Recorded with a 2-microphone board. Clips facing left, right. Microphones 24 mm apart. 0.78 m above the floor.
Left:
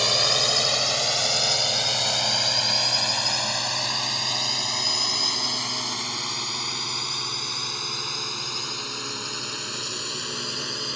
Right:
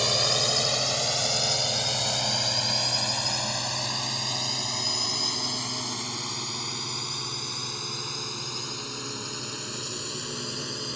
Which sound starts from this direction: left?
A drone, at 0.0 s.